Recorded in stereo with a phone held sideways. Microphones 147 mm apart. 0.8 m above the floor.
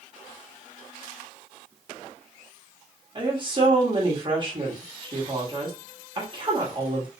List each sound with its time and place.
3.1 s a woman speaking: 35° right (ahead or behind), 1.3 m